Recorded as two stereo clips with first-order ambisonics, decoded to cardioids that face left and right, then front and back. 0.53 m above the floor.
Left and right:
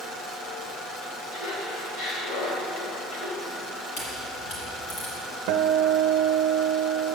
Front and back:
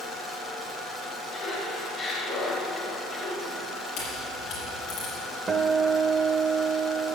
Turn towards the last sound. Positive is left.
turn(degrees=-110)